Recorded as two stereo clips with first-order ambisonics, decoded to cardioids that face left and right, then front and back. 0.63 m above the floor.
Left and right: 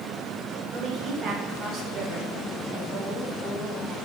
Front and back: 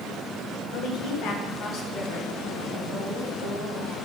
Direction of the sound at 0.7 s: 30° right.